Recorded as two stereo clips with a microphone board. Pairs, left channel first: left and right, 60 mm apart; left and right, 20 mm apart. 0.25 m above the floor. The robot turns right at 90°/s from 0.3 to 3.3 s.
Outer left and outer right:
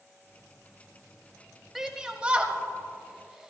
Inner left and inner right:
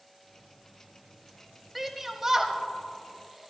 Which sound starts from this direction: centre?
A shout, at 1.8 s.